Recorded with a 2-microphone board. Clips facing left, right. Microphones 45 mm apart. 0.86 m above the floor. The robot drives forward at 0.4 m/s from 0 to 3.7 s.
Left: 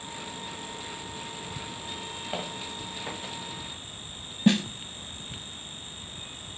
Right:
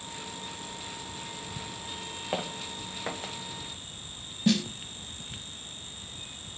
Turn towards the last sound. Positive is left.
turn(degrees=25)  # may be behind; listen again after turning